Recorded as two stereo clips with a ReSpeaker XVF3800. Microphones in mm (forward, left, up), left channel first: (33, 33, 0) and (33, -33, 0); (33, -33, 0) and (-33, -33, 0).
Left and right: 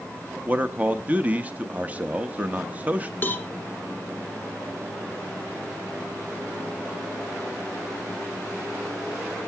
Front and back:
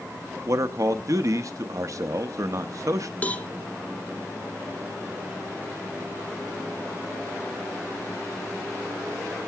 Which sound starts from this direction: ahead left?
A cowbell, at 3.2 s.